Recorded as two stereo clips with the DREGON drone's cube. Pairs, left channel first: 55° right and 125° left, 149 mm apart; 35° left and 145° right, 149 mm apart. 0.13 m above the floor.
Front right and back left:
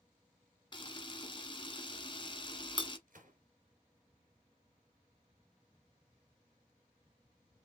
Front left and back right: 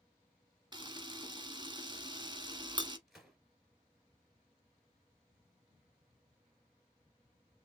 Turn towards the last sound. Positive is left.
turn(degrees=125)